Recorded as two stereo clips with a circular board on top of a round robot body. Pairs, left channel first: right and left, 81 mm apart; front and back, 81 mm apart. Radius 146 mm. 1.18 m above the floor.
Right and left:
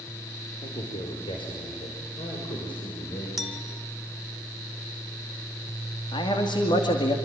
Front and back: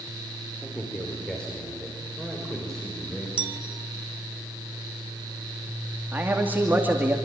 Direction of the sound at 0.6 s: 75° right.